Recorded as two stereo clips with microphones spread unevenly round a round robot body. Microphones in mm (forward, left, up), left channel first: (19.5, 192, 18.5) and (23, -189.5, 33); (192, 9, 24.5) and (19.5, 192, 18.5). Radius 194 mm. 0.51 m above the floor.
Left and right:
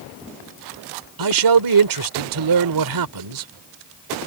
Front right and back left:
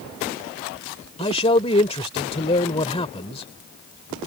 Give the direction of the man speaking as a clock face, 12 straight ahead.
4 o'clock.